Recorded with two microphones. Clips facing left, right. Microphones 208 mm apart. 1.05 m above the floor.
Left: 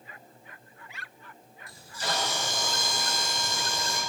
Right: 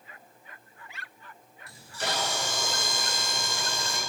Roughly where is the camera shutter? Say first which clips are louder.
Right 1 dB; right.